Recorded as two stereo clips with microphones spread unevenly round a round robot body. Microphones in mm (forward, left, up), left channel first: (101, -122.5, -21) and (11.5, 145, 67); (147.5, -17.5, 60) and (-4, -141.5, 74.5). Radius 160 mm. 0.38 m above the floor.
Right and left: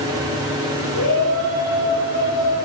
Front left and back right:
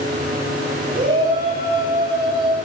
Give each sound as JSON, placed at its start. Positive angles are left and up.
{"t": 0.9, "sound": "a shout", "azimuth_deg": -95, "distance_m": 10.0}